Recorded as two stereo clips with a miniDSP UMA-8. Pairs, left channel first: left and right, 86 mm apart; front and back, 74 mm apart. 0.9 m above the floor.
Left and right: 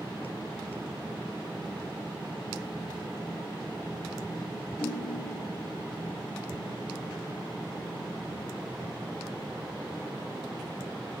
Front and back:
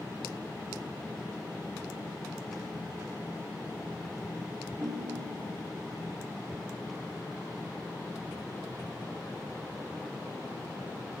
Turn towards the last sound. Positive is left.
turn(degrees=125)